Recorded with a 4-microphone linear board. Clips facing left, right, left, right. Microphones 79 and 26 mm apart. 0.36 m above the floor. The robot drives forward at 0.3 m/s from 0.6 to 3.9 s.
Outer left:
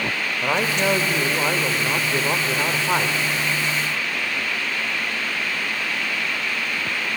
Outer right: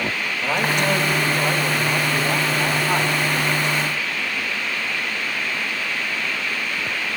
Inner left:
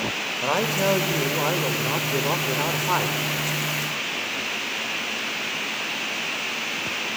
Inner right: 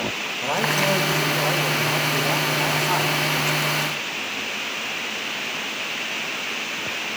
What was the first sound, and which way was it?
A man speaking, 20° left (ahead or behind).